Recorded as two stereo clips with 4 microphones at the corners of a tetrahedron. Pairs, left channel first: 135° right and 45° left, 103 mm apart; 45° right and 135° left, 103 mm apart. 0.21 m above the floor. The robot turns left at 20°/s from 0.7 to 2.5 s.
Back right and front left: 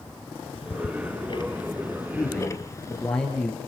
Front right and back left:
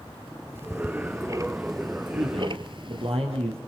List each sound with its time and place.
0.6 s ticking: 155° right, 1.1 m; by 3.1 s 165° left, 1.1 m
2.1 s a man speaking: 150° left, 4 m; by 3.6 s 140° left, 4 m